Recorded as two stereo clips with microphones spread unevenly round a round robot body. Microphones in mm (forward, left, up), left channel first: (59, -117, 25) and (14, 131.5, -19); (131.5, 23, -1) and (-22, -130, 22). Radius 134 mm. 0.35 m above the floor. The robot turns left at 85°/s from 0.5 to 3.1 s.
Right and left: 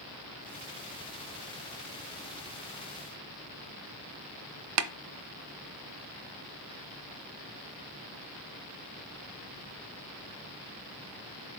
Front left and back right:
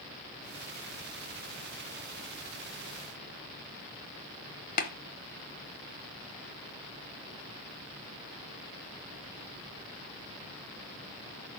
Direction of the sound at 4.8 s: 95° left.